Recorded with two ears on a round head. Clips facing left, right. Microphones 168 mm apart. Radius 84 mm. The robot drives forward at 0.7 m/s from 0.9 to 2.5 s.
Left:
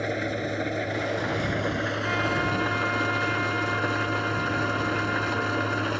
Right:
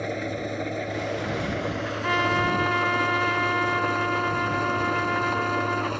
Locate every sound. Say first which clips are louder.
0.0 s an engine running: left 1 dB; 5° left (ahead or behind)
2.0 s a trumpet: right 6 dB; 70° right (ahead or behind); by 5.9 s 65° right (ahead or behind)